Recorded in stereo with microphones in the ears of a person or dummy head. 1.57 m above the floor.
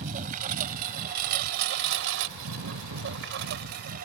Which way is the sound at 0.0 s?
40° right (ahead or behind).